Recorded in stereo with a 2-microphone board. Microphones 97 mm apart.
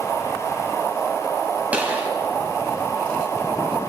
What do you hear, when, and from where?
1.7 s a gunshot: 15° right (ahead or behind), 3 m